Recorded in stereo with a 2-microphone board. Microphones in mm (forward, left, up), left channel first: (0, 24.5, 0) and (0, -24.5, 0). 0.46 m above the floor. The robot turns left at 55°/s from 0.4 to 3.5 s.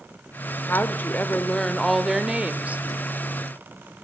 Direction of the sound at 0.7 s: 70° left.